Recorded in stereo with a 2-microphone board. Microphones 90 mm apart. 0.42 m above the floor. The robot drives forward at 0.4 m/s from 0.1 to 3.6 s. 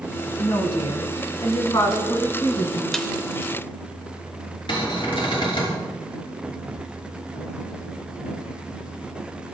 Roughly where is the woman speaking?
Left.